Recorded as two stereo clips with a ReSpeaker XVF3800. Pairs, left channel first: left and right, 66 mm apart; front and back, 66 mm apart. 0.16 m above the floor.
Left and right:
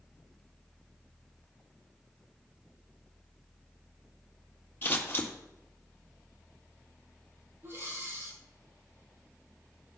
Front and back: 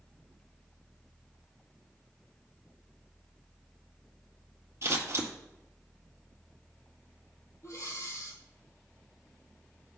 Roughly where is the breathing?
Ahead right.